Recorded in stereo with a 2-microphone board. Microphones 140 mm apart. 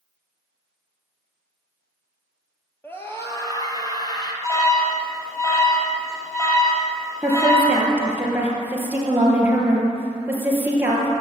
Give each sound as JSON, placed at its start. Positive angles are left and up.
{"t": 2.8, "sound": "a scream", "side_deg": 15, "distance_m": 2.0}
{"t": 4.4, "sound": "an alarm", "side_deg": 20, "distance_m": 3.0}
{"t": 7.2, "sound": "a woman speaking", "side_deg": -15, "distance_m": 3.0}